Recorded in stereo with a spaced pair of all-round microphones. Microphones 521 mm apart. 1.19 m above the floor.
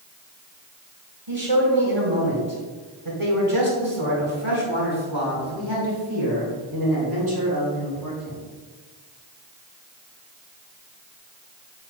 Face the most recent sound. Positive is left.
turn(degrees=-40)  # may be behind; listen again after turning